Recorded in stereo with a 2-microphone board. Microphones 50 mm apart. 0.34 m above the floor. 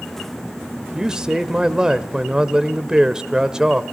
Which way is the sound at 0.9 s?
15° right (ahead or behind).